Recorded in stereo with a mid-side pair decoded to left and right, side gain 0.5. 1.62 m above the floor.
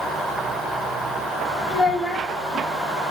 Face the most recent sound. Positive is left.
turn(degrees=20)